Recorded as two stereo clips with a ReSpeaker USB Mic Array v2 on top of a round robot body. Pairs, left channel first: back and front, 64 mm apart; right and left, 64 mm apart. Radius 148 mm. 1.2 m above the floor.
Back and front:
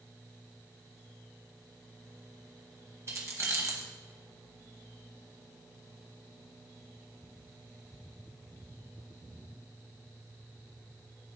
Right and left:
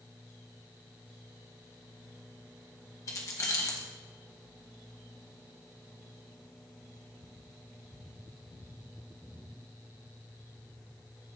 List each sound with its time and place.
3.1 s keys jangling: 50° right, 1.0 m